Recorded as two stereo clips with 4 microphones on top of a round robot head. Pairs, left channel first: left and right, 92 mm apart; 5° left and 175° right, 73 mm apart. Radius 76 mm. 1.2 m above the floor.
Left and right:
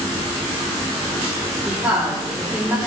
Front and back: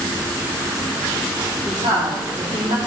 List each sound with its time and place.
1.6 s a woman speaking: 165° right, 2.5 m